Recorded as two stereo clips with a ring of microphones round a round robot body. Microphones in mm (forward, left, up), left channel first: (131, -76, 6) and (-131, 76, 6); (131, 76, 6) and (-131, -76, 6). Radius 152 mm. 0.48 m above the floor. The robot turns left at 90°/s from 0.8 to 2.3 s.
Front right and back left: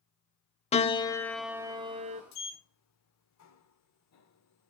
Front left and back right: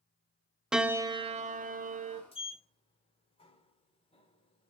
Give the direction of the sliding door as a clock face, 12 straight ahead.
1 o'clock.